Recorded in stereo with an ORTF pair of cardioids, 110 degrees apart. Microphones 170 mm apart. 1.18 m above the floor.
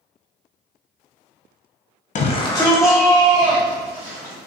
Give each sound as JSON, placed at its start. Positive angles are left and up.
{"t": 2.1, "sound": "a shout", "azimuth_deg": 45, "distance_m": 0.5}